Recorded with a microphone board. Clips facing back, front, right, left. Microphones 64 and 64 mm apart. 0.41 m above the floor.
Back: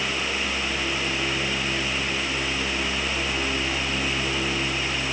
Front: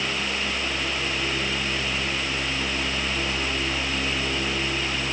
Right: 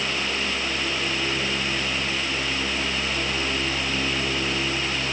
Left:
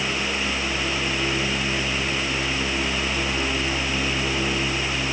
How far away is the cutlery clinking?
No cutlery clinking in this recording.